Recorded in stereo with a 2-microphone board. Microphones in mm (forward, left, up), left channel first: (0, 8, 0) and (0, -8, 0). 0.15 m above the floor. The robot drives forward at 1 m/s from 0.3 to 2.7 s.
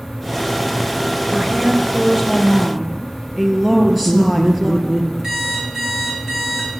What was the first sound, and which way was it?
A woman speaking, 15° right (ahead or behind).